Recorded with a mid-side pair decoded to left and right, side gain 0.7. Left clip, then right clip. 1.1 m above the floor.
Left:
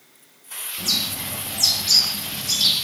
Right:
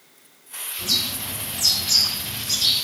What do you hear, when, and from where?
0.8 s a bird: 60° left, 1.7 m